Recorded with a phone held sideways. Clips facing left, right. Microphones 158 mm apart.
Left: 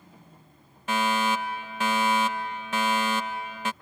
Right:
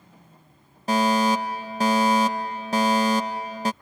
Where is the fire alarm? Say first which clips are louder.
Right 5 dB; 35° right (ahead or behind).